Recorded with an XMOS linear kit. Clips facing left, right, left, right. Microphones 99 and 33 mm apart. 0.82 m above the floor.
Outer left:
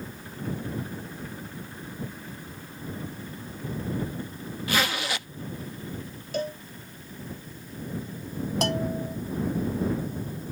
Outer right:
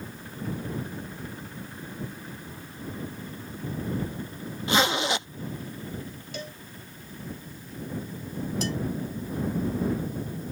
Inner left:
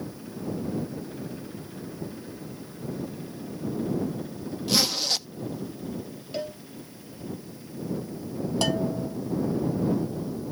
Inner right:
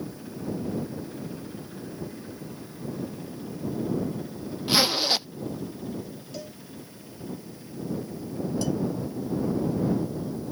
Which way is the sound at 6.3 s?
45° left (ahead or behind).